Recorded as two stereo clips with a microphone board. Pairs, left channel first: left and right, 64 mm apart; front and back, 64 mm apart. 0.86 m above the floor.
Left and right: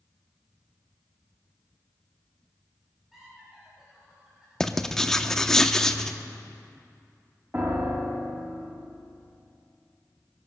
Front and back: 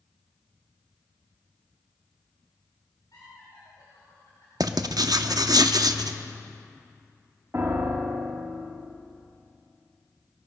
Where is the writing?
175° left, 0.6 m.